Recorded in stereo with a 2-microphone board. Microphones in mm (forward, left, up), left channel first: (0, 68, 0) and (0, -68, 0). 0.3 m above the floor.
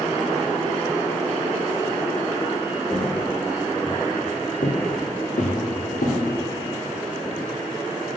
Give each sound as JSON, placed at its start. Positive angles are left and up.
{"t": 2.9, "sound": "footsteps", "side_deg": 0, "distance_m": 1.6}